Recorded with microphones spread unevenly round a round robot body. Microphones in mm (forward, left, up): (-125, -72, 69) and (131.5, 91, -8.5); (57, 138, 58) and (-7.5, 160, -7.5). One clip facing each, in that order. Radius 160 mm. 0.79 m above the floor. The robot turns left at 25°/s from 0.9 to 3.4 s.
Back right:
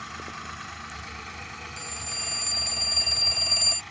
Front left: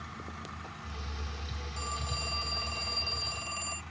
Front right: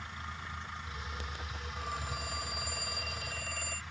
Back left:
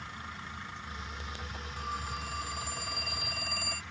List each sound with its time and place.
1.8 s a phone ringing: 80° right; by 3.8 s 120° right